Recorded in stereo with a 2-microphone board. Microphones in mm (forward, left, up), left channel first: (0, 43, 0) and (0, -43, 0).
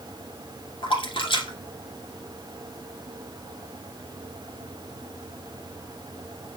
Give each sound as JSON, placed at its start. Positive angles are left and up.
{"t": 0.8, "sound": "a splash", "side_deg": 80, "distance_m": 1.7}